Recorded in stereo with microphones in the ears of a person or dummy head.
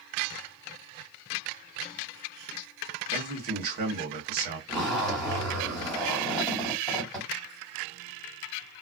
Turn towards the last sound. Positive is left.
turn(degrees=5)  # may be behind; listen again after turning